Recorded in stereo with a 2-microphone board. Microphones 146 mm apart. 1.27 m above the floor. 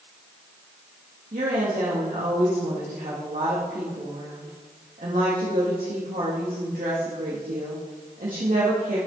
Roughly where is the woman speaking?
Right.